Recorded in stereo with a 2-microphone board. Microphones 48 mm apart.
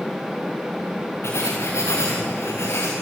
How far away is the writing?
About 5 m.